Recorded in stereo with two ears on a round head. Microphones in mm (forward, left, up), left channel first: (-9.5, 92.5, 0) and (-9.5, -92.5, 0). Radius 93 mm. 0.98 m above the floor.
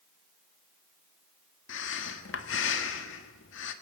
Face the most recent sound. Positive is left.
turn(degrees=70)  # may be behind; listen again after turning